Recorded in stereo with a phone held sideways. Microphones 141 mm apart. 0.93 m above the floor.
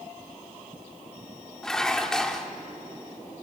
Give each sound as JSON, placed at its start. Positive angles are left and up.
{"t": 1.6, "sound": "dishes clattering", "side_deg": 5, "distance_m": 1.2}